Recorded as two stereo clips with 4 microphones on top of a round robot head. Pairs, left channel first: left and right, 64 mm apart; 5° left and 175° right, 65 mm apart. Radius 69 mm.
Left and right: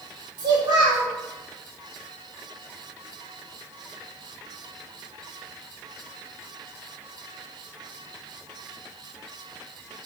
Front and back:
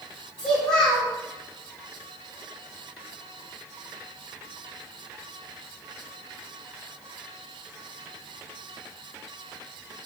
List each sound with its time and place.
0.4 s a child speaking: 75° right, 3 m